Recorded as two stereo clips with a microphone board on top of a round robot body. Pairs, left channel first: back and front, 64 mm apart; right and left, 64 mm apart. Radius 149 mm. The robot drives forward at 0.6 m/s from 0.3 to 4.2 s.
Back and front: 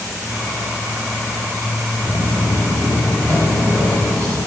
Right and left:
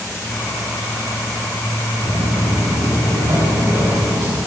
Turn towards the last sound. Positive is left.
turn(degrees=105)